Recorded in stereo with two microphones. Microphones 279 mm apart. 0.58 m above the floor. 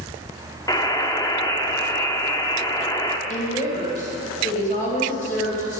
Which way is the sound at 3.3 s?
25° left (ahead or behind).